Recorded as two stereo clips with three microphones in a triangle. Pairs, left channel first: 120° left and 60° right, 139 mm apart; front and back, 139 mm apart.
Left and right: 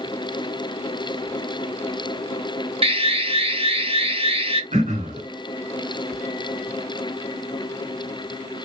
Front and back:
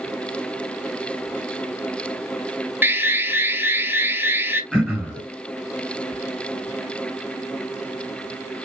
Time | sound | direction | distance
2.8 | an alarm | 105° right | 0.8 m
4.7 | throat clearing | 100° right | 3 m